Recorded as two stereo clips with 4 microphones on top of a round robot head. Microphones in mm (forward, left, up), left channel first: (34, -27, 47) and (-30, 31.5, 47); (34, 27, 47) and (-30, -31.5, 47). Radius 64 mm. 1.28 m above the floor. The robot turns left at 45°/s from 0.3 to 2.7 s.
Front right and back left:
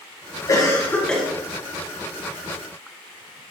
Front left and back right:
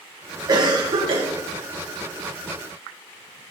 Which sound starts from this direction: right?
A cough, at 0.5 s.